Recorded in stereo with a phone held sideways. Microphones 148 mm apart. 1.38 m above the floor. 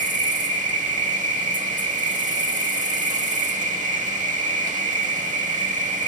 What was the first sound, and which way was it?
An insect, 65° right (ahead or behind).